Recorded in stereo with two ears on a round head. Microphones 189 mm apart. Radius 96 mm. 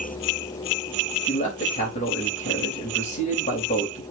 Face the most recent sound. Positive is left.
turn(degrees=35)  # may be behind; listen again after turning